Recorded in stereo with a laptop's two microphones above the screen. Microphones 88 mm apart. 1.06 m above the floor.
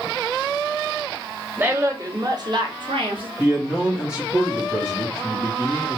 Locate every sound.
1.6 s a woman speaking: 20° right (ahead or behind), 1.0 m; by 3.3 s 70° right (ahead or behind), 1.1 m
3.4 s a man speaking: 10° right (ahead or behind), 1.2 m